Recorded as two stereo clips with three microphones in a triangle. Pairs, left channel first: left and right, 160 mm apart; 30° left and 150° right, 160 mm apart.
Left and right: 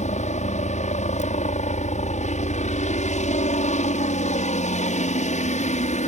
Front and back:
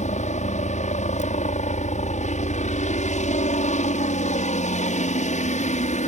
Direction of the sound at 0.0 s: 60° left.